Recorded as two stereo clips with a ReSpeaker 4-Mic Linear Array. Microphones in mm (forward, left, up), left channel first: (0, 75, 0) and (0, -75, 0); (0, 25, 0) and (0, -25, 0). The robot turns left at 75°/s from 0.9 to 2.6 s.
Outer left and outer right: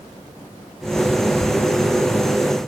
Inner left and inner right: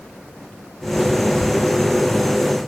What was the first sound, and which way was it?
Only background noise.